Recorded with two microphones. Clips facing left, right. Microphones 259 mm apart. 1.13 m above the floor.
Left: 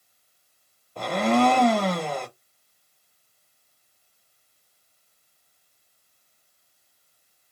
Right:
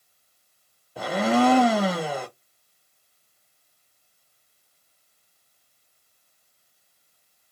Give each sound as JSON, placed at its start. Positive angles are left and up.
{"t": 1.0, "sound": "a blender", "side_deg": -5, "distance_m": 0.7}